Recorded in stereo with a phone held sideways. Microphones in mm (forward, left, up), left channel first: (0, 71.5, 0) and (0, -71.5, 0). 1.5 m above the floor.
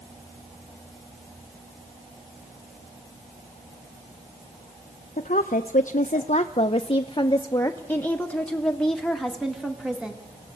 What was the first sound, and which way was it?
A woman speaking, 65° left (ahead or behind).